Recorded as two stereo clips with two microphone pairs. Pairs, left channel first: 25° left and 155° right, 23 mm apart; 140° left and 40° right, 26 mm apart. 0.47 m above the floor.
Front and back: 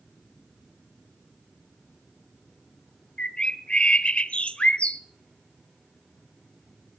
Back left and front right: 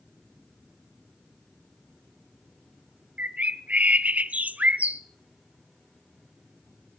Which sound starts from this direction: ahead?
A bird, at 3.2 s.